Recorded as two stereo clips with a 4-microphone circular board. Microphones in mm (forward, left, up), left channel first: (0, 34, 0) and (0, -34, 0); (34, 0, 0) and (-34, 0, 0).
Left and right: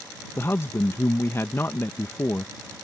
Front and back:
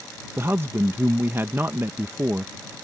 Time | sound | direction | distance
0.4 | a man speaking | 130° left | ?